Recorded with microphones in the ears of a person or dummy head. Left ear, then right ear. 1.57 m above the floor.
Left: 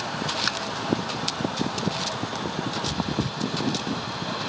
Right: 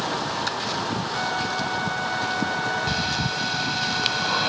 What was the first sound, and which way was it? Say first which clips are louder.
Tapping: even; 25° left (ahead or behind).